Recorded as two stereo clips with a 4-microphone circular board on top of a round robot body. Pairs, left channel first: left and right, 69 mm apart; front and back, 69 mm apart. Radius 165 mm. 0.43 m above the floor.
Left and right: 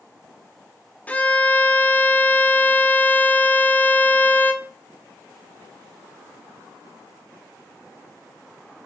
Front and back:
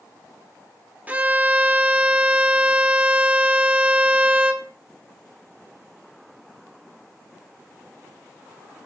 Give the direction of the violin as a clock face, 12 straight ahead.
7 o'clock.